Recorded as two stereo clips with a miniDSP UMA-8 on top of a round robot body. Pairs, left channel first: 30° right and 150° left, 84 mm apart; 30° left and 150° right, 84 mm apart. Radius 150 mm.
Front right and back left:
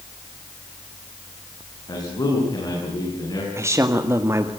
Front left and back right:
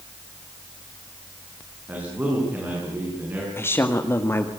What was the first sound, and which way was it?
A man speaking, 80° right.